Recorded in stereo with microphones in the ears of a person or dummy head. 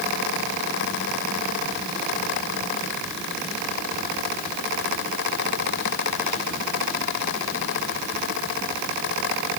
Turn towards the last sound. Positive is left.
No sound to turn to.